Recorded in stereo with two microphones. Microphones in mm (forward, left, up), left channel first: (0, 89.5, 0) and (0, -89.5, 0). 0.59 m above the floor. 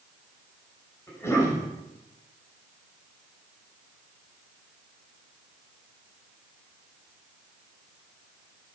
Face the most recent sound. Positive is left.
turn(degrees=15)  # may be behind; listen again after turning